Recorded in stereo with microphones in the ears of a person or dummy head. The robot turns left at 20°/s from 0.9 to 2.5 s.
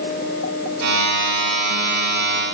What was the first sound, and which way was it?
Only background noise.